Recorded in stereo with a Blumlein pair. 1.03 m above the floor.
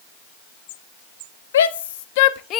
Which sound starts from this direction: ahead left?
A shout, at 1.5 s.